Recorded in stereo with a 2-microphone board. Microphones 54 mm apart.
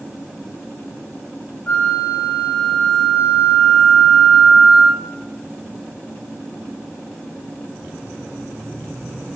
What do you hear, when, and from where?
1.7 s a flute: 30° left (ahead or behind), 1.3 m